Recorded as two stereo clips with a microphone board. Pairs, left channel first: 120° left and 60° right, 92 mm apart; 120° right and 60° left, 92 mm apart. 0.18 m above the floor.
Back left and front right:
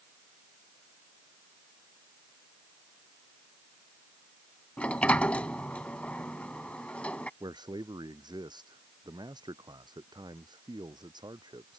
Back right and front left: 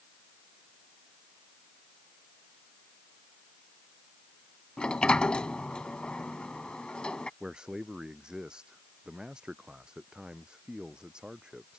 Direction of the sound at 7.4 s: 20° right.